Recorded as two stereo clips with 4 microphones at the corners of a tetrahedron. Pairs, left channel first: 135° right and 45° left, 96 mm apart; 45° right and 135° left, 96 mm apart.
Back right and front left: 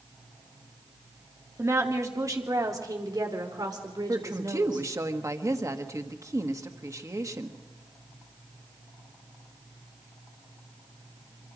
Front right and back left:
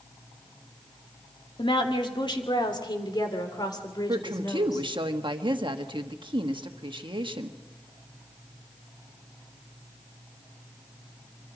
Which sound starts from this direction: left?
A woman speaking, at 4.1 s.